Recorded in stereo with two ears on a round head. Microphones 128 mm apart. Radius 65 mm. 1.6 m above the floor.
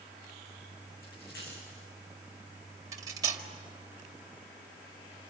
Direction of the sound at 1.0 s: 75° left (ahead or behind).